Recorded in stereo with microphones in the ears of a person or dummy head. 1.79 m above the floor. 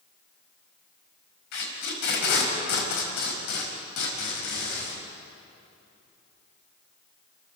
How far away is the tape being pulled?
About 4.5 m.